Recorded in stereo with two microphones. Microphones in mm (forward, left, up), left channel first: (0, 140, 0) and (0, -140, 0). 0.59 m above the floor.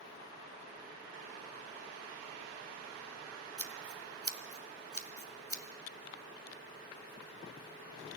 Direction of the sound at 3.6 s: 55° right (ahead or behind).